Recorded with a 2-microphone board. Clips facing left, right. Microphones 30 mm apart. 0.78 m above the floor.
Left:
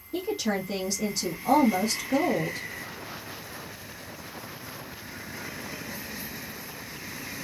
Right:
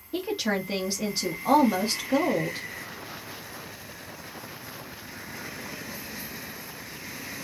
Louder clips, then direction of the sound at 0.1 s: Right 1 dB; 30° right (ahead or behind).